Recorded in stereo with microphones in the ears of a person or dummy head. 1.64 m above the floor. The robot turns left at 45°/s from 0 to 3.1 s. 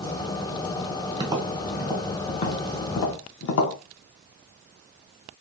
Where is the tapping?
25° right (ahead or behind), 0.7 m; by 3.8 s 60° left (ahead or behind), 0.7 m.